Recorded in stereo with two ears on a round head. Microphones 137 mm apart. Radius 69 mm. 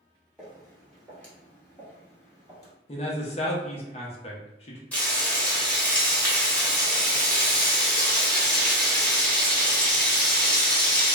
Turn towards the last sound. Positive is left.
turn(degrees=10)  # may be behind; listen again after turning